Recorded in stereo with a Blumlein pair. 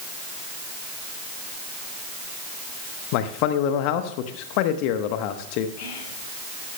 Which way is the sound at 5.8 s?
45° left.